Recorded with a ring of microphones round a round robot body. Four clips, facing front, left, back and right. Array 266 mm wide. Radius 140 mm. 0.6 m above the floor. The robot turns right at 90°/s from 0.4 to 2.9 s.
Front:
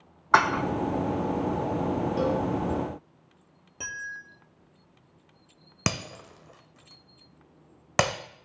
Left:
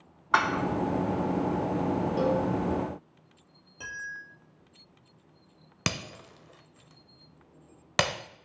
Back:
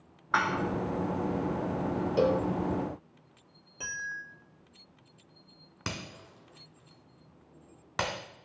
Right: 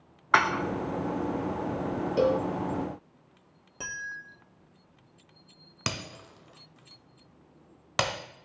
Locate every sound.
0.3 s dishes clattering: 20° right, 0.7 m; by 0.6 s 5° left, 0.7 m
2.2 s a cowbell: 135° right, 0.8 m; by 2.5 s 110° right, 0.8 m
3.8 s a bell: 50° right, 1.5 m
5.9 s breaking glass: 15° left, 0.6 m